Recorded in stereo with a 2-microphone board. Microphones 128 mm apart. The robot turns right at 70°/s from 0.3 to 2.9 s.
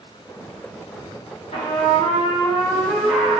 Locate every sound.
1.5 s a trumpet: 80° left, 1.2 m; by 3.4 s 175° left, 1.2 m